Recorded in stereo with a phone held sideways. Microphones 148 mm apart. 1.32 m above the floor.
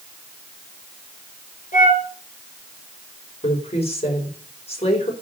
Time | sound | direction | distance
1.7 | a flute | 65° left (ahead or behind) | 5.5 m
3.4 | a woman speaking | 45° left (ahead or behind) | 5 m